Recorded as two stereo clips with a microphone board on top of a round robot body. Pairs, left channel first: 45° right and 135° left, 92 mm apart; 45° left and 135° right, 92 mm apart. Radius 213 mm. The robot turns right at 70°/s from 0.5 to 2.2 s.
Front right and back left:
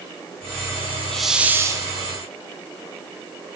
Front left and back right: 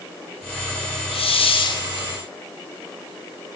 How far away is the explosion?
No explosion in this recording.